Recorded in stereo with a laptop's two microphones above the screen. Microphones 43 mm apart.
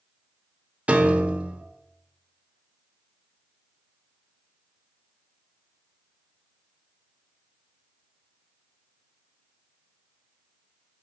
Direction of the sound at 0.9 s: 30° right (ahead or behind).